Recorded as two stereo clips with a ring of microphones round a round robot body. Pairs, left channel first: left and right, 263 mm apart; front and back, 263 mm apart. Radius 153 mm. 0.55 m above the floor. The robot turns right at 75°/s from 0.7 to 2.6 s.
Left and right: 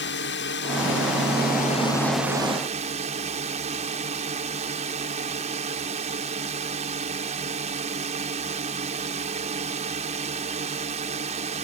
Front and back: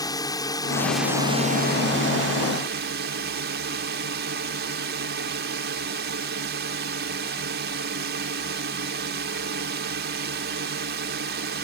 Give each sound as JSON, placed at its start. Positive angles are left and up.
{"t": 0.0, "sound": "a drone", "azimuth_deg": 70}